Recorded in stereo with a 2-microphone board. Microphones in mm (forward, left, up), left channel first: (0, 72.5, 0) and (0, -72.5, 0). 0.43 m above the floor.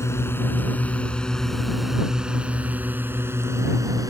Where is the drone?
20° left (ahead or behind); by 4.1 s 25° right (ahead or behind).